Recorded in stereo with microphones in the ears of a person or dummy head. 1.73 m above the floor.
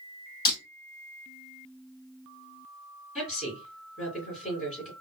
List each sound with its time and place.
0.5 s breaking glass: 25° left (ahead or behind), 3 m
3.1 s a woman speaking: centre (ahead or behind), 2.5 m